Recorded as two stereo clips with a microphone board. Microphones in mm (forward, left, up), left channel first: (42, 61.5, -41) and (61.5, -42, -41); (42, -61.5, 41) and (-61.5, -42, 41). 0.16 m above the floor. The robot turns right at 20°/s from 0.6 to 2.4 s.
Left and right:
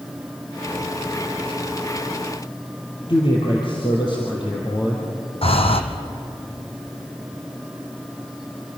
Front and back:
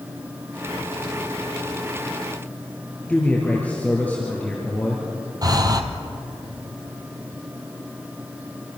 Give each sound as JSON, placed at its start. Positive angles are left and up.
{"t": 3.1, "sound": "a man speaking", "azimuth_deg": 65, "distance_m": 4.0}
{"t": 5.4, "sound": "breathing", "azimuth_deg": 120, "distance_m": 1.8}